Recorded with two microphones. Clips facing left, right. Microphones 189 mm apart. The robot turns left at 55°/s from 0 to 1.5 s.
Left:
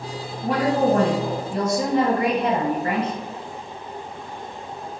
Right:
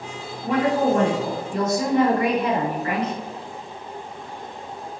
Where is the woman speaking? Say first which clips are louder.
Even; 100° left, 0.9 m; by 3.1 s 40° left, 0.9 m.